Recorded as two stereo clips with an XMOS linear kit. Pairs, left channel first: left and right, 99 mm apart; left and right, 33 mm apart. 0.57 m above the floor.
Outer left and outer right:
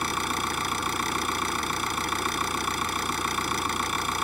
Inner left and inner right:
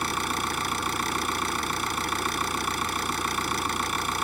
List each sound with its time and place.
0.0 s an engine running: centre (ahead or behind)